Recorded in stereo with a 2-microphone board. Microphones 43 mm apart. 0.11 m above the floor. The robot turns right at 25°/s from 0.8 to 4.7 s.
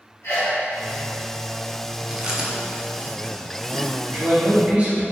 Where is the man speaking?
40° right (ahead or behind), 1.7 m; by 5.0 s 30° right (ahead or behind), 1.7 m.